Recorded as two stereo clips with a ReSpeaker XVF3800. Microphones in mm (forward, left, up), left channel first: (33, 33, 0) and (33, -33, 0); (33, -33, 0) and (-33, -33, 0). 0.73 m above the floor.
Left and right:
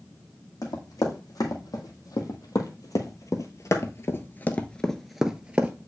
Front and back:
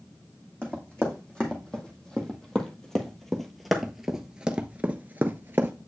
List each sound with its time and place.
0.6 s running footsteps: 70° left, 2.5 m; by 5.7 s 145° right, 0.9 m